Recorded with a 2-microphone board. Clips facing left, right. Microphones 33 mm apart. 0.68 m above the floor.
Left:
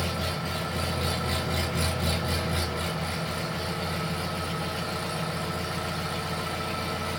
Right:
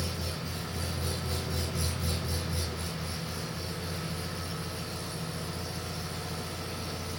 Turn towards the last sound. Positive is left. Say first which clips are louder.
# left 6 dB
turn(degrees=60)  # may be behind; listen again after turning